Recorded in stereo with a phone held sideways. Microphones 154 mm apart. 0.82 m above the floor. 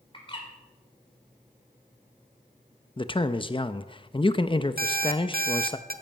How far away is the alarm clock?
About 1.1 m.